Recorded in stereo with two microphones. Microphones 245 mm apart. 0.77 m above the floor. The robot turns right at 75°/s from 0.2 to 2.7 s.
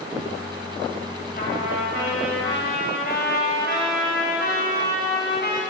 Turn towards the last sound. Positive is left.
turn(degrees=140)